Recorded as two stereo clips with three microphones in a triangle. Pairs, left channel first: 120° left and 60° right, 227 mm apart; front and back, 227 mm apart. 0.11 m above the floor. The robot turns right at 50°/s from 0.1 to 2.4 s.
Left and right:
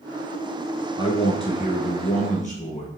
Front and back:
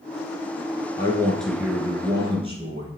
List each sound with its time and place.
1.0 s a man speaking: 65° left, 1.3 m; by 2.9 s 135° left, 1.3 m